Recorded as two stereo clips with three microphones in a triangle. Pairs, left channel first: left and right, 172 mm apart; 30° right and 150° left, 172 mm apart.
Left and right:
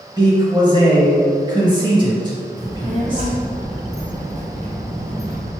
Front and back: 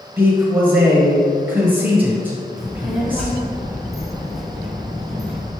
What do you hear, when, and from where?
0.2 s a man speaking: 135° right, 1.1 m
2.6 s a child speaking: 120° right, 1.2 m